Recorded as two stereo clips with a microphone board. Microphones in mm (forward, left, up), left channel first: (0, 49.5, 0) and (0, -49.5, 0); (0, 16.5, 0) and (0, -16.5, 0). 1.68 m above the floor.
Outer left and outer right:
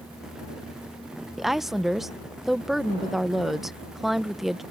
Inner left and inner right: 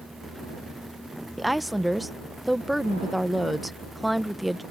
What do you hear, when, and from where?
1.4 s a woman speaking: centre (ahead or behind)